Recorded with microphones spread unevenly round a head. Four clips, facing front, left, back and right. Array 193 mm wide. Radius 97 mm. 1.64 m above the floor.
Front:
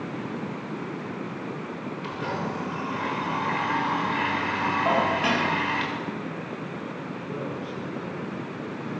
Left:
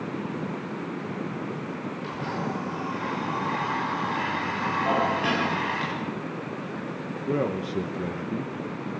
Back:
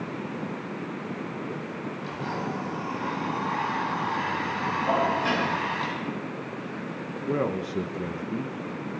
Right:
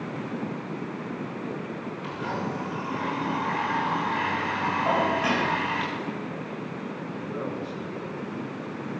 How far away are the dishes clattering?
About 8 m.